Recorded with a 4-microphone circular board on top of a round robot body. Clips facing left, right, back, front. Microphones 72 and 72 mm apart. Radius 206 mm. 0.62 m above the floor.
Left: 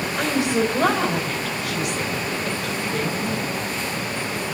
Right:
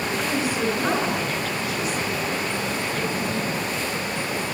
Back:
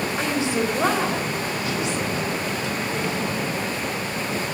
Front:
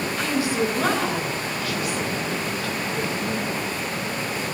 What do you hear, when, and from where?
0.2 s a woman speaking: 110° left, 3.5 m